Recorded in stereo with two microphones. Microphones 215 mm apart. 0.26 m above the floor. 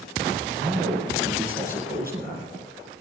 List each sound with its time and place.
0.6 s a man speaking: 45° right (ahead or behind), 5 m